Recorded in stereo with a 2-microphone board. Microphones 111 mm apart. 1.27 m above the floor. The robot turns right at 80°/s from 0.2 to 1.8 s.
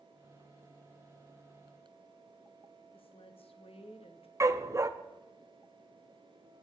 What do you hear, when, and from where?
2.9 s a woman speaking: 60° left (ahead or behind), 1.5 m
4.4 s a dog barking: 30° right (ahead or behind), 0.7 m